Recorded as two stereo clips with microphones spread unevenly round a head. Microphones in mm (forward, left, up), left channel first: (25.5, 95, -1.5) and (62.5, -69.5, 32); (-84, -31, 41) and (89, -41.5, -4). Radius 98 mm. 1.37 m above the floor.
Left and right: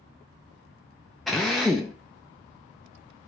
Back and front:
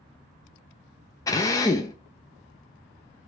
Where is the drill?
155° right, 0.6 m.